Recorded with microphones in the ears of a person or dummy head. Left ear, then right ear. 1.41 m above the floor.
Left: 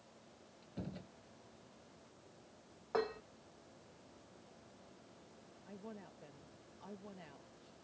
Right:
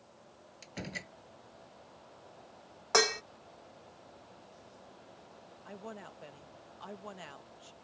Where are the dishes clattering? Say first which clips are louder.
Right 11 dB; 55° right (ahead or behind).